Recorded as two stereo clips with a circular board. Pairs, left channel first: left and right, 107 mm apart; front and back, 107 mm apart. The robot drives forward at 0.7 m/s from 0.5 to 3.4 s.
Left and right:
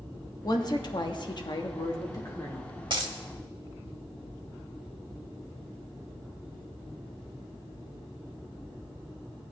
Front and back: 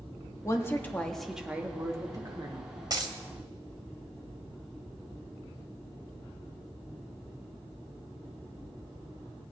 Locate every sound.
0.4 s a woman speaking: 55° left, 1.1 m; by 2.7 s 145° left, 1.4 m
2.9 s a dropped coin: 130° right, 1.0 m; by 3.1 s 135° right, 1.1 m